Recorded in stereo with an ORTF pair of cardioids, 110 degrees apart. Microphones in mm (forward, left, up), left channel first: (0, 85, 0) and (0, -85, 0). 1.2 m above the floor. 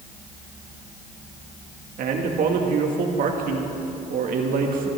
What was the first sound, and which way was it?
A man speaking, 60° right.